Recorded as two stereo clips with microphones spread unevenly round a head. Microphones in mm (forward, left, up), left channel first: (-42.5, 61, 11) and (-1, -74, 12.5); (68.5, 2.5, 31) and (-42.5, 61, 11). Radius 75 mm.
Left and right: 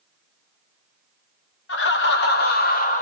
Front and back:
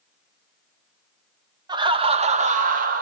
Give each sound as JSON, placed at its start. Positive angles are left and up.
{"t": 1.7, "sound": "laughter", "azimuth_deg": 95, "distance_m": 0.9}